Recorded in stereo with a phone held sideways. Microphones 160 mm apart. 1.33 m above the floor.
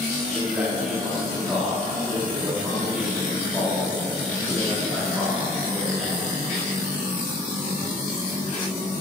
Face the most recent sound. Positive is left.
turn(degrees=-5)  # may be behind; listen again after turning